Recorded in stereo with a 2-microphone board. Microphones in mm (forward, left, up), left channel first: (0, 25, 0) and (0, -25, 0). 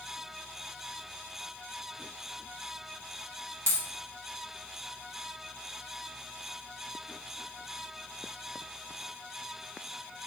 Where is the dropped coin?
65° right (ahead or behind), 1.0 m.